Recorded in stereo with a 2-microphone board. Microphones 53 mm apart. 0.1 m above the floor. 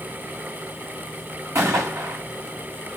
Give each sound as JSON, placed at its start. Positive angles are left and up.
{"t": 1.6, "sound": "a gunshot", "side_deg": -60, "distance_m": 5.5}